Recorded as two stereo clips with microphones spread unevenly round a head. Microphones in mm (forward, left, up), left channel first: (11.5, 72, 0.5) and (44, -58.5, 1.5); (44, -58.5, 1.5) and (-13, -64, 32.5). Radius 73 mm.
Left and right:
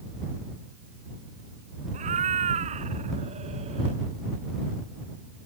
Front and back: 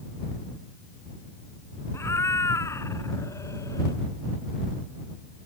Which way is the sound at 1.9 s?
45° right.